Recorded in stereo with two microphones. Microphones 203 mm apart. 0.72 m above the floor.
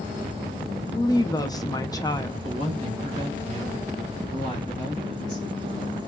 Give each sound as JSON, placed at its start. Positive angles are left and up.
{"t": 0.9, "sound": "a woman speaking", "side_deg": 20, "distance_m": 0.6}
{"t": 2.4, "sound": "a woman speaking", "side_deg": -40, "distance_m": 2.0}